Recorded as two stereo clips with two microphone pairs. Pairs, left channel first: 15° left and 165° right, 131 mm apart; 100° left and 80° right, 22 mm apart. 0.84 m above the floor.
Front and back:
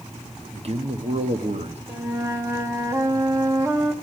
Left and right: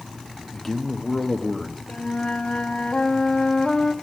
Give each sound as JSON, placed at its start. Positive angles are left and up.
{"t": 0.5, "sound": "a man speaking", "azimuth_deg": 175, "distance_m": 1.4}
{"t": 1.9, "sound": "a flute", "azimuth_deg": 130, "distance_m": 1.6}